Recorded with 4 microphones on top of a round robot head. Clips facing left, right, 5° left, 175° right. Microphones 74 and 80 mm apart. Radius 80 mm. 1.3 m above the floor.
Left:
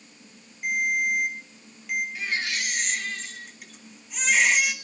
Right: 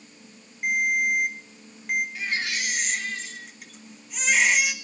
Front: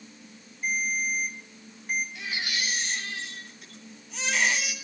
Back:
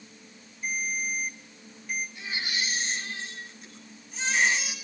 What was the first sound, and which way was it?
A ringtone, 45° right.